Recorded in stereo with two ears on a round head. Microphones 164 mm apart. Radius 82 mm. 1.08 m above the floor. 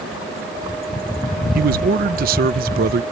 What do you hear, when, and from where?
1.6 s a man speaking: 50° right (ahead or behind)